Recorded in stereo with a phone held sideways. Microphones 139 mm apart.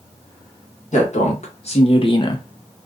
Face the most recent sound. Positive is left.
turn(degrees=25)  # may be behind; listen again after turning